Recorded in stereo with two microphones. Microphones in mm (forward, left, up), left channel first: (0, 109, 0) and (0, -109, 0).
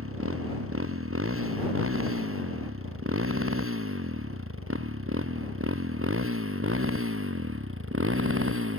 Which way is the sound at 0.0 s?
80° right.